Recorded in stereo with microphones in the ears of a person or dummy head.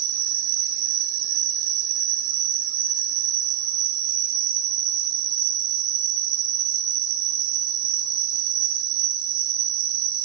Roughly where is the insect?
Right.